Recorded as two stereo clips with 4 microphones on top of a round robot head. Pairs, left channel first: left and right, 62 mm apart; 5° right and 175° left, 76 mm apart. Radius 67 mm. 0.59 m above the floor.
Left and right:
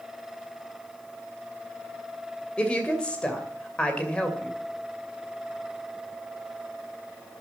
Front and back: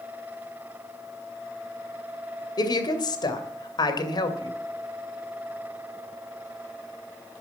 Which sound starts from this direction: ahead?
A woman speaking, at 2.6 s.